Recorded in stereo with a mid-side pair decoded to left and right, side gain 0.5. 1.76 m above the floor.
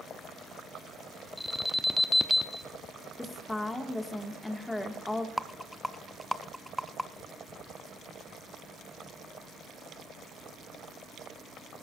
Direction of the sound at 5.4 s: Straight ahead.